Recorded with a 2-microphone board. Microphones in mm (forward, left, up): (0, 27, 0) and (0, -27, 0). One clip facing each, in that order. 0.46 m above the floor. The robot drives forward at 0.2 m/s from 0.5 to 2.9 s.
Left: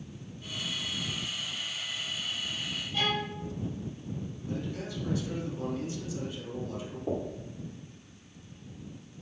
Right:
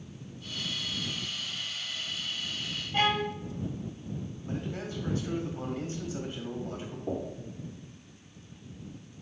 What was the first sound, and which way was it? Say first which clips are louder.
A violin: right 4 dB; 45° right (ahead or behind).